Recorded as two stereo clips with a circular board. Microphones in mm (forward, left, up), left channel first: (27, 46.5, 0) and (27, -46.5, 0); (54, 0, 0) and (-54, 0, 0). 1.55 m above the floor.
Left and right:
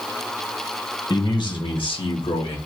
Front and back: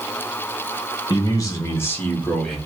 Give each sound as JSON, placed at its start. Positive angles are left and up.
{"t": 1.1, "sound": "a man speaking", "azimuth_deg": 50, "distance_m": 1.6}